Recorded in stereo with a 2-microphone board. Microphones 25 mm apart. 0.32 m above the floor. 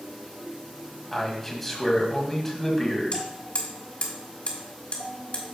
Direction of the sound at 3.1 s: 50° left (ahead or behind).